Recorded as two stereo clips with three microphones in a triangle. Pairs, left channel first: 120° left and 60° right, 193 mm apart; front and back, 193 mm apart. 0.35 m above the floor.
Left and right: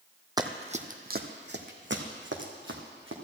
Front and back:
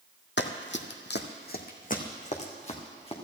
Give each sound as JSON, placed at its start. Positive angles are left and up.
{"t": 0.4, "sound": "running footsteps", "azimuth_deg": 10, "distance_m": 1.0}